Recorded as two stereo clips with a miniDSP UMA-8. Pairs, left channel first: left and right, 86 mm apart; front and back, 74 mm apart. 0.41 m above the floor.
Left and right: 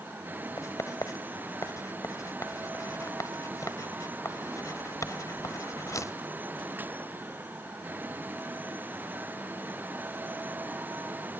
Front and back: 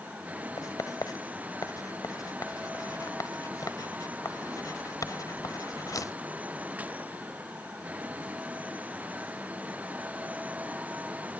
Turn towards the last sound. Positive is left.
turn(degrees=40)